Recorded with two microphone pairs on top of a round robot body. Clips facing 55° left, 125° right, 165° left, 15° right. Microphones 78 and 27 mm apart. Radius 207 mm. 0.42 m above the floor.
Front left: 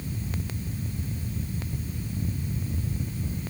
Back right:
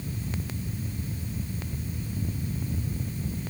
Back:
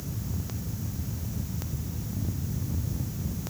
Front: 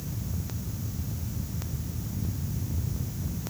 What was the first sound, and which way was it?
Only background noise.